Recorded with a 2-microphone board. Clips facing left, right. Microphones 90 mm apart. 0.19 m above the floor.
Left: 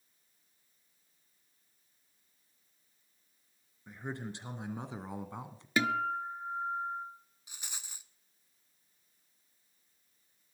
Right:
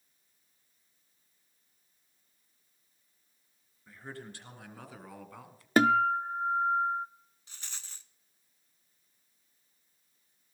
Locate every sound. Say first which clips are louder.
3.9 s a man speaking: left 4 dB; 20° left (ahead or behind), 2.5 m; by 5.7 s 25° left (ahead or behind), 1.5 m
5.8 s a guitar: right 7 dB; 50° right (ahead or behind), 0.5 m
7.5 s a rattle: left 1 dB; 15° left (ahead or behind), 0.5 m